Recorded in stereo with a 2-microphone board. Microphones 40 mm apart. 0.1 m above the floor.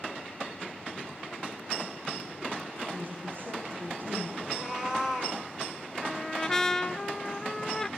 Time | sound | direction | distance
2.9 | a woman speaking | 50° right (ahead or behind) | 5.5 m
4.5 | a cat meowing | 15° right (ahead or behind) | 3.5 m
6.0 | a trumpet | 10° left (ahead or behind) | 0.5 m